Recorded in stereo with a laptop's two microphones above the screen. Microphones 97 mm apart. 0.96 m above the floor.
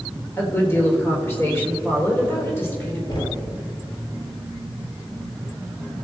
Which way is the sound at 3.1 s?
50° left (ahead or behind).